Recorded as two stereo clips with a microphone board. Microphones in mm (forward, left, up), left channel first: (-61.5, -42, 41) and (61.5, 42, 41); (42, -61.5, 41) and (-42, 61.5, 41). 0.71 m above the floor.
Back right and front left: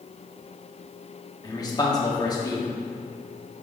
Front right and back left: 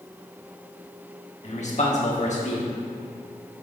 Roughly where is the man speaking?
Right.